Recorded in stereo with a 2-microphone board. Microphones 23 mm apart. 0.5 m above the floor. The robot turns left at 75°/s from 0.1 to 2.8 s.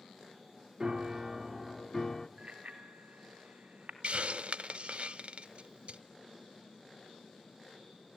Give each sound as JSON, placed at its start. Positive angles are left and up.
{"t": 0.8, "sound": "a piano", "azimuth_deg": -110, "distance_m": 1.1}
{"t": 2.4, "sound": "a bicycle bell", "side_deg": -45, "distance_m": 3.0}
{"t": 4.0, "sound": "a hiss", "side_deg": -55, "distance_m": 0.9}